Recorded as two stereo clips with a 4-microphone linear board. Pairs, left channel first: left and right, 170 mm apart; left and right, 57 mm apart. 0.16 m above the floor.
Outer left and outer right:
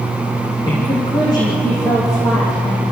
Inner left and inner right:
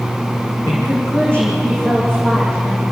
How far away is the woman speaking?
About 7.5 m.